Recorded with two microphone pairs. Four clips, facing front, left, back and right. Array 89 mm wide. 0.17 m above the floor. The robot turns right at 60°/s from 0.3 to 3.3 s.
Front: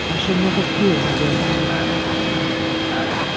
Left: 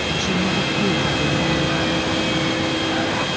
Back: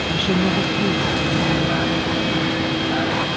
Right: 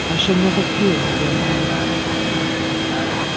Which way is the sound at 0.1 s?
85° right.